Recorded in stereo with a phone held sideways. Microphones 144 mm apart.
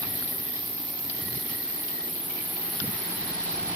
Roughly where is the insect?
Right.